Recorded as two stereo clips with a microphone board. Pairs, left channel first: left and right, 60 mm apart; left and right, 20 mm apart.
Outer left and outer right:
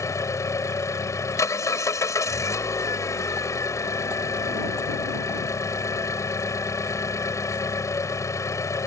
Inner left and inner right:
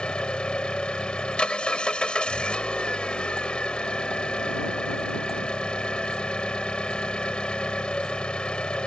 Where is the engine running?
60° left (ahead or behind).